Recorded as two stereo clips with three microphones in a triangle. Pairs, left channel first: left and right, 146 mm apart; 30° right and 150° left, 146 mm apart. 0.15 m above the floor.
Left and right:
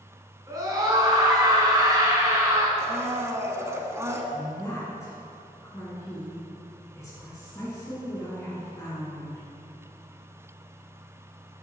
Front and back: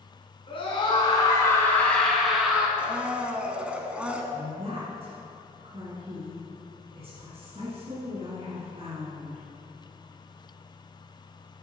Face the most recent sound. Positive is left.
turn(degrees=150)